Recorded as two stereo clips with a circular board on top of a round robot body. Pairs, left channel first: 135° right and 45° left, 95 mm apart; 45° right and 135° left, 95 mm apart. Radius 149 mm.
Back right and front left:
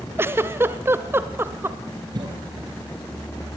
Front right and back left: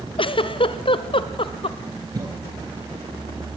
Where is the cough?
90° left, 3.5 m.